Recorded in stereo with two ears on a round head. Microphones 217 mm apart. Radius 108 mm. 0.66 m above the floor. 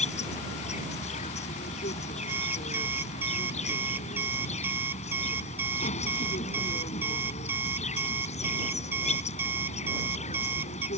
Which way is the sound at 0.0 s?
30° left (ahead or behind).